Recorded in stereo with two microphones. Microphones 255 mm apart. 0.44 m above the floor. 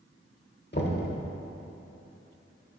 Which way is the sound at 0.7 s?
40° left (ahead or behind).